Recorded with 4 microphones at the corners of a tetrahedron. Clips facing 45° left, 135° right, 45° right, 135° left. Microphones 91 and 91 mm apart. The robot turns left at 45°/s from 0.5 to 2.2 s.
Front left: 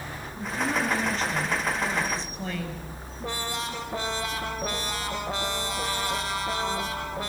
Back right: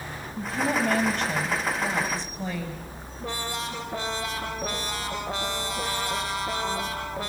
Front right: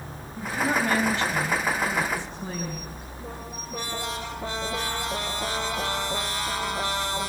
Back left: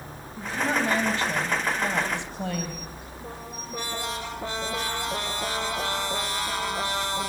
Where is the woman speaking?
140° right, 7 m; by 2.9 s 140° left, 7 m.